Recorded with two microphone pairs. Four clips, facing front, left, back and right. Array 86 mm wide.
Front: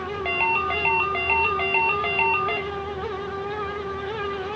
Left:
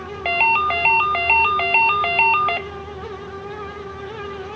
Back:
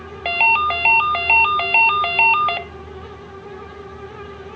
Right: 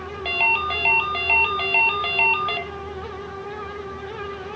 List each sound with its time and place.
0.2 s a ringtone: 140° left, 0.7 m